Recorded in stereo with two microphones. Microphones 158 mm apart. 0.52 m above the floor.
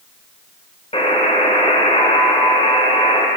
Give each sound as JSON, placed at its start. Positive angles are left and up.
{"t": 0.9, "sound": "a buzzer", "side_deg": 35, "distance_m": 1.4}